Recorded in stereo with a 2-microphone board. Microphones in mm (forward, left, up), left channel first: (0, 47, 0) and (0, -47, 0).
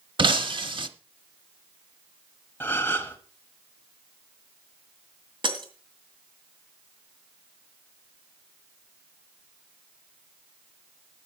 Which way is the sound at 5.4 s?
60° right (ahead or behind).